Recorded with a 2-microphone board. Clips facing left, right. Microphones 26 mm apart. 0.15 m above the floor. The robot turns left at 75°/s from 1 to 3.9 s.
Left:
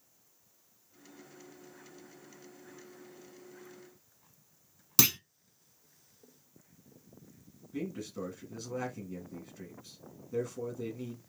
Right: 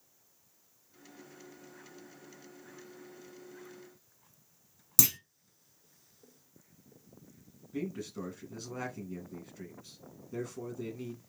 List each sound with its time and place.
5.0 s a clunk: 35° left (ahead or behind), 0.5 m
7.7 s a man speaking: 5° right (ahead or behind), 1.5 m